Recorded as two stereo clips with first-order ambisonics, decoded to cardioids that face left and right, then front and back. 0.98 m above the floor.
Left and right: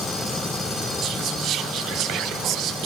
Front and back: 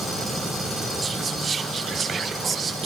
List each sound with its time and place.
1.0 s whispering: 115° right, 0.6 m